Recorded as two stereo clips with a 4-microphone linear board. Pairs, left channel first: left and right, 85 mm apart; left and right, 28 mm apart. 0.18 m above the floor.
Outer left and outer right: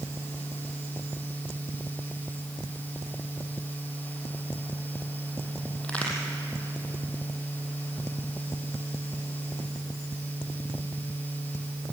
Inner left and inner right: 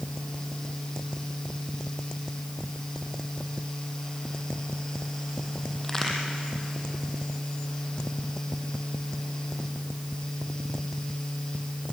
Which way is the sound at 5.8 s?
15° left (ahead or behind).